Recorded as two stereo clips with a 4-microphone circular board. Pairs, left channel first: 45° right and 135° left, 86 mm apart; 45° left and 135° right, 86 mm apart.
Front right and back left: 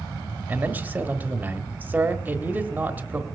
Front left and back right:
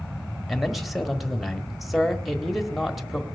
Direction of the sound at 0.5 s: 135° left.